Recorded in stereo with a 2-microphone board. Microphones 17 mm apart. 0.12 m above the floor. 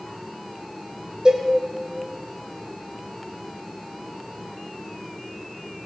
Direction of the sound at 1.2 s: 40° right (ahead or behind).